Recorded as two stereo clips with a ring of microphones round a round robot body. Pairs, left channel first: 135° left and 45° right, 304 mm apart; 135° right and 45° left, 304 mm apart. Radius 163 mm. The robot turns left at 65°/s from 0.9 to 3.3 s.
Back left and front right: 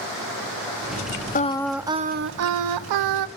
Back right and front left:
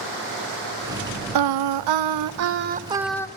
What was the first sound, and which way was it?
Singing, 70° left.